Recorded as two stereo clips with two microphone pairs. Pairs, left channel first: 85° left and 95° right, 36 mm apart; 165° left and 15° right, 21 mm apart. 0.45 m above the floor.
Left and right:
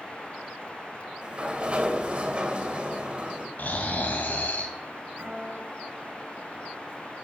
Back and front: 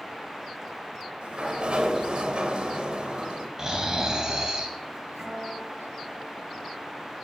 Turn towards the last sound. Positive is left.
turn(degrees=-50)